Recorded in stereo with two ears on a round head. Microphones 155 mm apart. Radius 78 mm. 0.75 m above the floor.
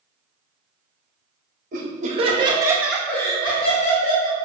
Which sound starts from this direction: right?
Laughter, at 1.7 s.